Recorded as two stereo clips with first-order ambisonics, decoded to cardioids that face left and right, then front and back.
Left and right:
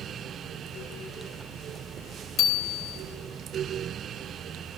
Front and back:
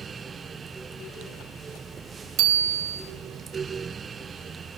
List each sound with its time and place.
2.4 s a bicycle bell: 140° left, 2.5 m